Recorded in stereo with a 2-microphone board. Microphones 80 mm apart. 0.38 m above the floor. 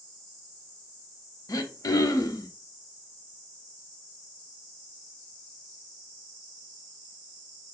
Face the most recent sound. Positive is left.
turn(degrees=50)  # may be behind; listen again after turning